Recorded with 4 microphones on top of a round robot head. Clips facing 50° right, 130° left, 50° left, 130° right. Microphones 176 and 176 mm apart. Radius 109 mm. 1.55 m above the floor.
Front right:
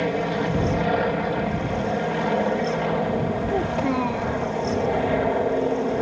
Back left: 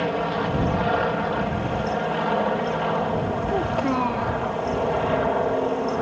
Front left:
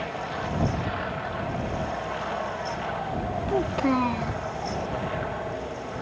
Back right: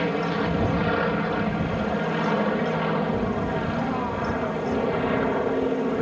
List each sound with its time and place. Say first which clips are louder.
0.0 s an aircraft: front right 1 dB, back right 8 dB; 125° right
3.5 s a child speaking: back left 1 dB, front left 2 dB; 30° left